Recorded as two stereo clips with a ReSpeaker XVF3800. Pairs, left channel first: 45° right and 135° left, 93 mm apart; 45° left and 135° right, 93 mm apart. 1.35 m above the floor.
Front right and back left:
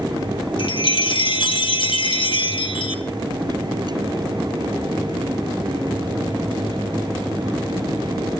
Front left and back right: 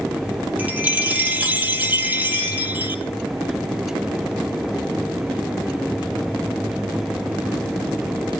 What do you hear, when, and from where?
0.6 s a chime: 65° right, 1.3 m